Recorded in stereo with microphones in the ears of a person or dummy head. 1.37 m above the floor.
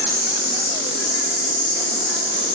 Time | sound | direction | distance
0.0 | an insect | 75° left (ahead or behind) | 0.9 m